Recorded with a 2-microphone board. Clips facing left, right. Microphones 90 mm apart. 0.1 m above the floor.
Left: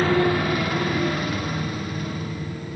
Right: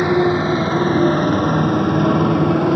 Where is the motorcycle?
20° right (ahead or behind); by 2.8 s 75° right (ahead or behind).